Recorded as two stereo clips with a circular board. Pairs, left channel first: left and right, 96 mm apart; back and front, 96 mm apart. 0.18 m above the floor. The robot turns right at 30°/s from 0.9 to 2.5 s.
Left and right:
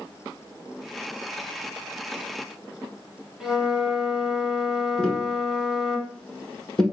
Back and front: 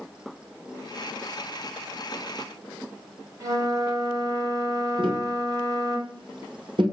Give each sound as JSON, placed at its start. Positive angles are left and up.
{"t": 3.4, "sound": "a flute", "azimuth_deg": -10, "distance_m": 0.9}
{"t": 5.0, "sound": "tapping", "azimuth_deg": 10, "distance_m": 1.0}